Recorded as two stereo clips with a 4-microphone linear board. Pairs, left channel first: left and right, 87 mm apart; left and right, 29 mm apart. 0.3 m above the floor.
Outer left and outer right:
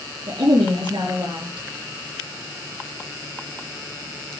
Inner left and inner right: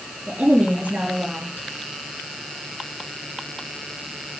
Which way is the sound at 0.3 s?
75° right (ahead or behind).